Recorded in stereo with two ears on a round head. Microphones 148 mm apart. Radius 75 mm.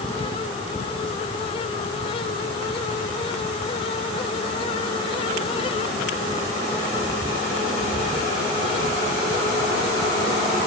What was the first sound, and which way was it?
Only background noise.